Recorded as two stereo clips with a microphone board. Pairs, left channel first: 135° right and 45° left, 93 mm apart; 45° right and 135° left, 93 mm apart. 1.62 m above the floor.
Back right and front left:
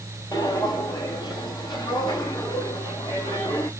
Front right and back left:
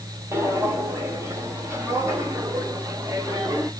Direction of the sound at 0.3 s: 170° right.